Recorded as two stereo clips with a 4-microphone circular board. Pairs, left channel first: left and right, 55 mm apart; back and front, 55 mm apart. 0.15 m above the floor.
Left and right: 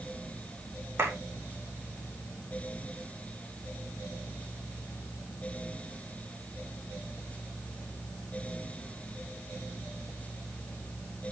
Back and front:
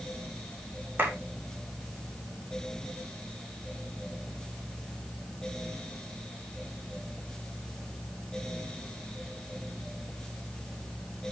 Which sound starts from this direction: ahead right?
A clap, at 1.0 s.